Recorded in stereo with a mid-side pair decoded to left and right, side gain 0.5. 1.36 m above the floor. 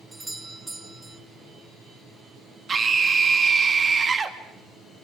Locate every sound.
0.1 s a doorbell: 15° right, 1.0 m
2.7 s a scream: 35° right, 3 m